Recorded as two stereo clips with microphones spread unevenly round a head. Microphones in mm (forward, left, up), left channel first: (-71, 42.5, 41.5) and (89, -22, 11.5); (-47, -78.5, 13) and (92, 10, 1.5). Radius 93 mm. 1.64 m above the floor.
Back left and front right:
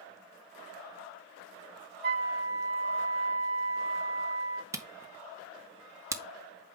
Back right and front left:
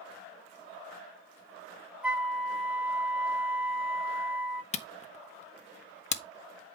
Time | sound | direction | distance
2.0 | a flute | 50° right | 1.2 m
4.7 | a camera shutter | 100° right | 0.8 m